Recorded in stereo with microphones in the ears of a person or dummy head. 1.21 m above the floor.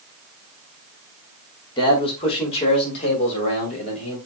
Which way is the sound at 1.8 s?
30° left (ahead or behind).